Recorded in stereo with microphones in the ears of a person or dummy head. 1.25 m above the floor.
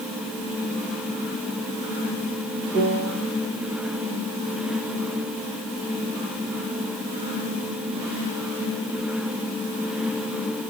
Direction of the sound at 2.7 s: 50° right (ahead or behind).